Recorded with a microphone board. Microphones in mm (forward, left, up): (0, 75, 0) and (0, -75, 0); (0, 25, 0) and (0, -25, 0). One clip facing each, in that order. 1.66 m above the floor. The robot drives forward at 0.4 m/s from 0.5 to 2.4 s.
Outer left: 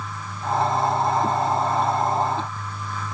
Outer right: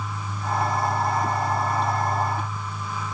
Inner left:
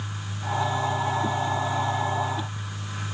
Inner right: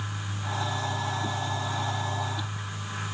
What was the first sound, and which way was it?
Only background noise.